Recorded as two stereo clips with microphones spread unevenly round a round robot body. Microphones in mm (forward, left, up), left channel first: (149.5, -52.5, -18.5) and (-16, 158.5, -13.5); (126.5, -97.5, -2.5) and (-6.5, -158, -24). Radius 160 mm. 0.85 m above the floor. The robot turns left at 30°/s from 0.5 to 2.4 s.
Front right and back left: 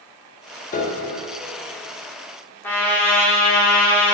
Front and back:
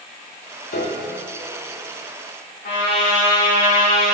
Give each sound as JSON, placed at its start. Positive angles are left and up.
{"t": 0.7, "sound": "a piano", "azimuth_deg": 10, "distance_m": 0.9}
{"t": 2.6, "sound": "a trumpet", "azimuth_deg": 30, "distance_m": 1.8}